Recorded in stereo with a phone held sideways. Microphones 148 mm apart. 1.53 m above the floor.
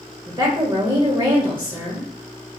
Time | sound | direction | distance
0.3 | a woman speaking | 35° right (ahead or behind) | 0.6 m